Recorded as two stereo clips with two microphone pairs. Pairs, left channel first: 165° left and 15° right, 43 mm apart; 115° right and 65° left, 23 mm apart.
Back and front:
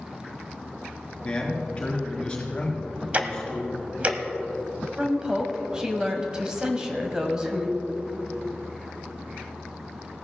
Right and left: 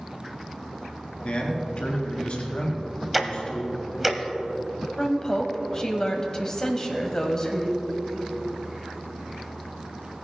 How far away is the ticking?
About 0.9 m.